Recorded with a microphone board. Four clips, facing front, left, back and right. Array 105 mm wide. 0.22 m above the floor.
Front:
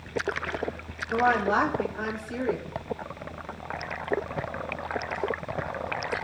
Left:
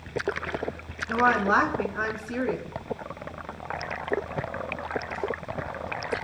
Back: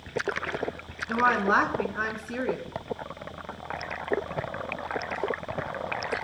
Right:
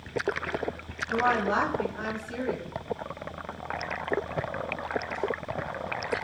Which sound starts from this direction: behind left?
A woman speaking, at 1.1 s.